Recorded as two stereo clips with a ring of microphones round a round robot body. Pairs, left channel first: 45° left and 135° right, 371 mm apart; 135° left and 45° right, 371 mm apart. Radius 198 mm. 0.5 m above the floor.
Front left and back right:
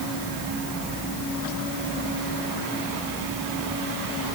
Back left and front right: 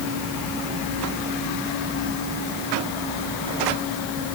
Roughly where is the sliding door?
I don't hear a sliding door.